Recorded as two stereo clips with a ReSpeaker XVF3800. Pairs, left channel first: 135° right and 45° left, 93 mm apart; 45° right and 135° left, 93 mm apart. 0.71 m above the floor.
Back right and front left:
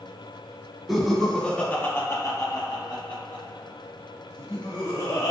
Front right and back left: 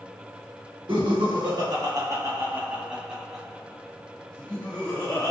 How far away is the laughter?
About 1.3 m.